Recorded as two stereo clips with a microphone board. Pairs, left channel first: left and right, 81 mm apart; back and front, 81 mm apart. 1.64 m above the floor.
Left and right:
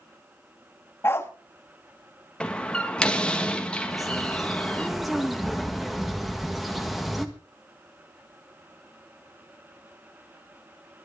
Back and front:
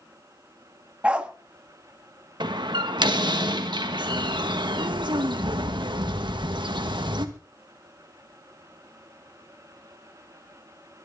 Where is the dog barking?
65° left, 1.2 m.